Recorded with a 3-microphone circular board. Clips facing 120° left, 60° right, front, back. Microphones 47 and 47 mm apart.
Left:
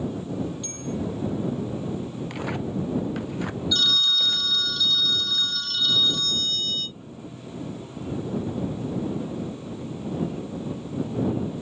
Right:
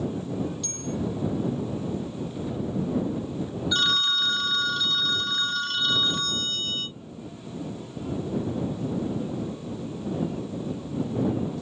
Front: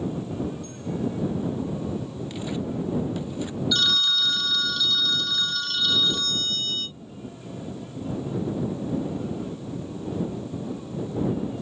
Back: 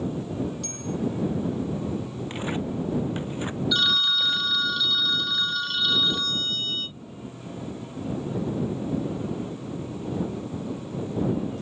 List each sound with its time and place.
0.6 s a bell: 170° right
2.3 s tearing paper: 130° left
3.7 s a phone ringing: 105° right